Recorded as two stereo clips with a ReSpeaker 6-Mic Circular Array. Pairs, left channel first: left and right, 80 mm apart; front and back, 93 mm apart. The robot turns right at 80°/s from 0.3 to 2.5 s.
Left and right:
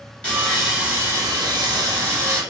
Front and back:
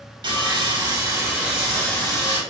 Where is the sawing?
165° left, 1.1 m; by 2.4 s 30° right, 1.1 m.